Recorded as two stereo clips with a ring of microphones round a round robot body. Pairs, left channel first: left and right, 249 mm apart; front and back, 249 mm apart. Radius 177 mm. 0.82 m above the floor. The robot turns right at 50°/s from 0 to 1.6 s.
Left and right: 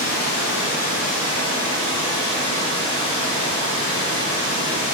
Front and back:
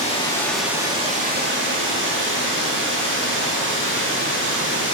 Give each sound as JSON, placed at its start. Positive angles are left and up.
{"t": 0.0, "sound": "running water", "azimuth_deg": 60, "distance_m": 1.5}